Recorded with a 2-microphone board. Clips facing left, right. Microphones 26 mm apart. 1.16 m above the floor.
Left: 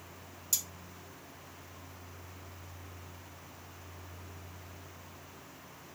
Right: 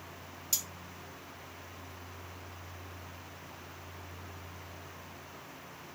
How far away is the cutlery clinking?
About 1.3 m.